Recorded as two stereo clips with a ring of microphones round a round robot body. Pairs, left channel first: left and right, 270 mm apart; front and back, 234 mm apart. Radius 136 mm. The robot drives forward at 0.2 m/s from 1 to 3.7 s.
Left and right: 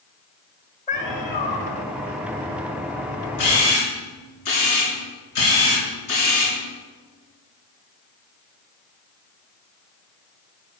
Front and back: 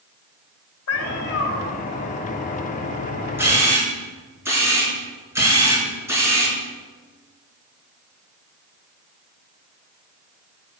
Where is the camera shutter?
100° left, 4.5 m.